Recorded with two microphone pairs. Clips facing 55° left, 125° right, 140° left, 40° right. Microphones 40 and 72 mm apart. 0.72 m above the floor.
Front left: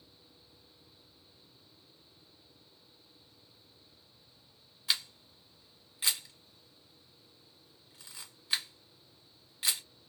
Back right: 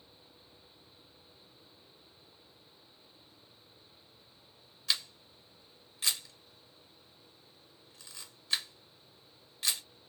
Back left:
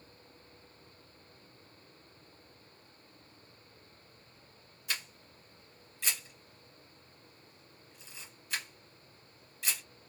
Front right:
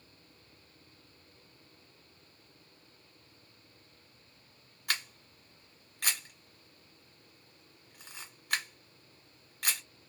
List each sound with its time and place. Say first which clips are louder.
4.9 s a camera shutter: even, front right 4 dB; 20° right, 1.4 m